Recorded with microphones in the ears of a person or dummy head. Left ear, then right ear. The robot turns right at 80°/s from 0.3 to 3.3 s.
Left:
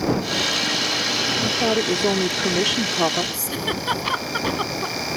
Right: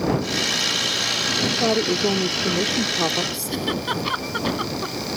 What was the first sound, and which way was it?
A woman speaking, 35° right.